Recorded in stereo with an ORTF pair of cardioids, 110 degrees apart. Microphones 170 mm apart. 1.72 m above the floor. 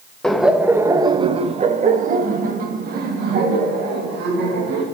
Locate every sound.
0.2 s laughter: 5° left, 1.1 m; by 4.8 s 75° right, 3 m